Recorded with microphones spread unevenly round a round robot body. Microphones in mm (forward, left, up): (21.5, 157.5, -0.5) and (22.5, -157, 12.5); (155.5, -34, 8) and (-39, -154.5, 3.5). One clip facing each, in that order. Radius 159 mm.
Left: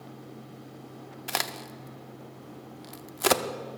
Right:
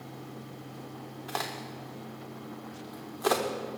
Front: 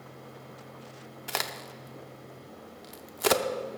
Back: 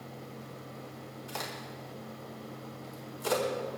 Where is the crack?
50° left, 0.7 m.